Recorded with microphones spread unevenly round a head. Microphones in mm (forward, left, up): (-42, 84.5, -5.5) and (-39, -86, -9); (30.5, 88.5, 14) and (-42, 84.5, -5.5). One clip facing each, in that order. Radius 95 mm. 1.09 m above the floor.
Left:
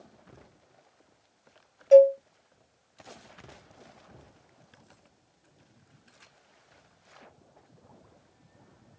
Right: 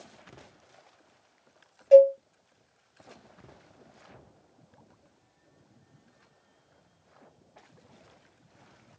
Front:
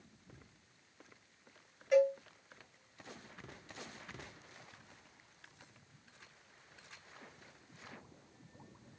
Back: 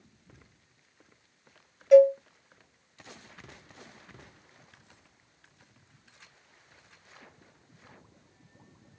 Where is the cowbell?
170° right, 1.9 m.